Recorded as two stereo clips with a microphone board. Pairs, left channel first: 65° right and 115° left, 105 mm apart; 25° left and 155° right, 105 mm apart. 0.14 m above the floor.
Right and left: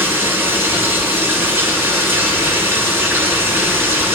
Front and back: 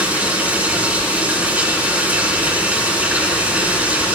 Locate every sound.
0.0 s running water: 145° left, 1.3 m